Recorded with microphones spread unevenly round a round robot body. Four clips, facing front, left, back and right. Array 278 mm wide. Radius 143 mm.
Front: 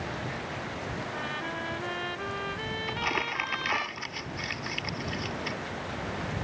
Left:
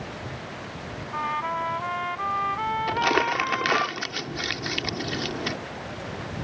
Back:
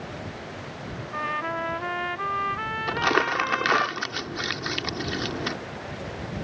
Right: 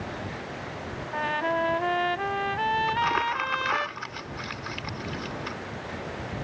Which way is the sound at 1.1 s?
110° right.